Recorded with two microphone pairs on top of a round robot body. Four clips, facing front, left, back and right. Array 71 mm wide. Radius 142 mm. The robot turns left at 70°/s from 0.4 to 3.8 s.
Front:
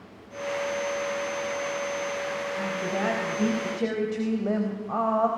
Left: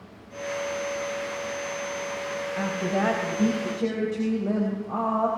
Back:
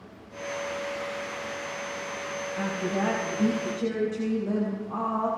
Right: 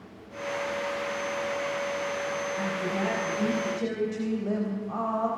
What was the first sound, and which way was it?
A woman speaking, 95° left.